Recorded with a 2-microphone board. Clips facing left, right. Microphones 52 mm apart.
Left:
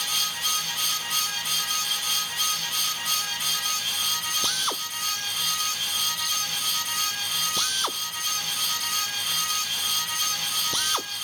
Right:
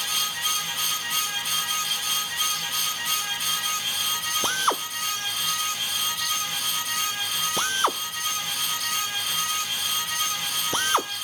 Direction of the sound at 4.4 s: 30° right (ahead or behind).